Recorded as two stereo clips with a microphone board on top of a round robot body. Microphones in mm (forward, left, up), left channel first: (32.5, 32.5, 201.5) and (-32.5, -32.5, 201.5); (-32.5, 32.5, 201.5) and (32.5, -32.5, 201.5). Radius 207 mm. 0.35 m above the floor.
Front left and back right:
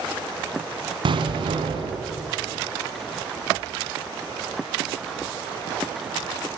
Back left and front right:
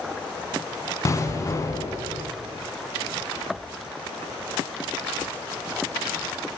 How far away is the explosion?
About 2.5 m.